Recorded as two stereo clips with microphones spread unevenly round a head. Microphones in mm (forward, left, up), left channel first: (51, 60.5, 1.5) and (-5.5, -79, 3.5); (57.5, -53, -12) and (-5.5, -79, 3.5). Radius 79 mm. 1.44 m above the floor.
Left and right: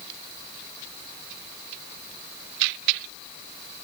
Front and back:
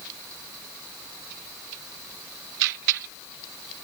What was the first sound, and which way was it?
Only background noise.